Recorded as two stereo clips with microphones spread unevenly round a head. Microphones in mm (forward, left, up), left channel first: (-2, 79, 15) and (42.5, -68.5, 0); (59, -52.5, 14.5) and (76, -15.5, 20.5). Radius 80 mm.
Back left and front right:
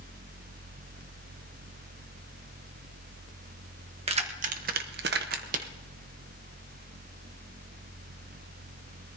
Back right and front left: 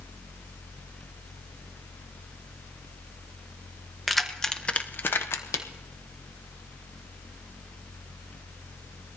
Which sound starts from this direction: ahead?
Keys jangling, at 4.1 s.